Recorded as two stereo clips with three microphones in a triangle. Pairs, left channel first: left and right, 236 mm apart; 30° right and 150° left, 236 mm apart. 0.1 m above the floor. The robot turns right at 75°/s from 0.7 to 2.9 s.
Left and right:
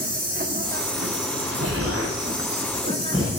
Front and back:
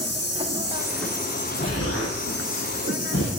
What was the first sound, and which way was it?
An insect, 140° right.